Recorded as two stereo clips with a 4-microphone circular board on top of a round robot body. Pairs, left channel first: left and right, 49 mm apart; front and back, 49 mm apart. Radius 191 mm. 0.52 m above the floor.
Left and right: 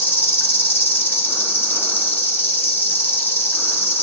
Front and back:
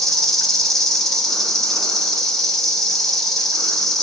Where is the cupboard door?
I don't hear a cupboard door.